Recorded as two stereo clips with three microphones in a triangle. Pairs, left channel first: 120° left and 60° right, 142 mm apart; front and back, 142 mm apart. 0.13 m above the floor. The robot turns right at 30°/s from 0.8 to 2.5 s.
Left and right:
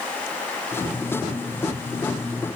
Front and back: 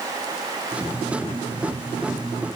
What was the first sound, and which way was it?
Only background noise.